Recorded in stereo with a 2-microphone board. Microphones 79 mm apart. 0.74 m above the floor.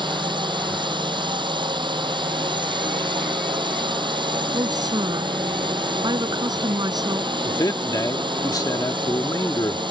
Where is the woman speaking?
60° right (ahead or behind).